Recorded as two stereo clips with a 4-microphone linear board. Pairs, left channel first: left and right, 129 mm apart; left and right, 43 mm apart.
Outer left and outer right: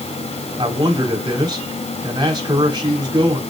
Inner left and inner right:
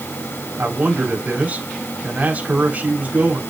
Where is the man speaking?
35° right (ahead or behind), 4 m.